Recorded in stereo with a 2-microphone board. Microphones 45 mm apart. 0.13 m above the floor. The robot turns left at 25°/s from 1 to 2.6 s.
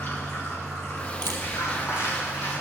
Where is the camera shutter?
65° left (ahead or behind), 3 m.